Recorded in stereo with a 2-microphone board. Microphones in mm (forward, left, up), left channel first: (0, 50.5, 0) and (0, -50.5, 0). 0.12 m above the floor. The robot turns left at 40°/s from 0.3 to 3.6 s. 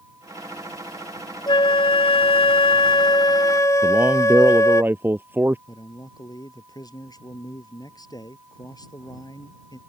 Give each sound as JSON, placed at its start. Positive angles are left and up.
{"t": 1.5, "sound": "a flute", "azimuth_deg": 120}
{"t": 3.8, "sound": "a man speaking", "side_deg": -20}
{"t": 5.7, "sound": "a man speaking", "side_deg": 40}